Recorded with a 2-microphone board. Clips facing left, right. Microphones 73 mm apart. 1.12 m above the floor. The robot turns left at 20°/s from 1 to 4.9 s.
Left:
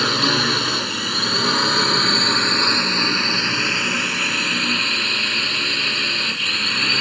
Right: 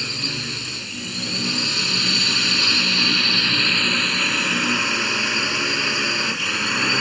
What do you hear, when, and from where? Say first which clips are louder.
0.0 s a drone: left 11 dB; 65° left; by 7.0 s 10° right